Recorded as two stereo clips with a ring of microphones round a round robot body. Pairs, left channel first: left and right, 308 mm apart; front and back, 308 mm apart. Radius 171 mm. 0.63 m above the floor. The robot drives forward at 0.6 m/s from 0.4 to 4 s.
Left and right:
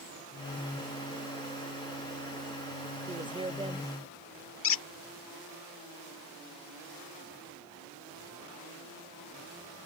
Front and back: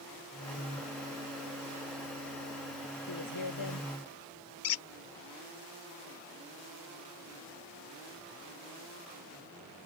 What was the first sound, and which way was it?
A woman speaking, 15° right.